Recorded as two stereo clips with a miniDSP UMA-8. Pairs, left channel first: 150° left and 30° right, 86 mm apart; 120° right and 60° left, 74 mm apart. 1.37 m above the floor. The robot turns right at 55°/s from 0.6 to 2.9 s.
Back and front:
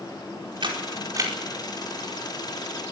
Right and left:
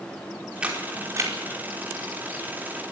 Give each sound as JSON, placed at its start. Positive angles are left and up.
{"t": 0.6, "sound": "a camera shutter", "azimuth_deg": -15, "distance_m": 4.5}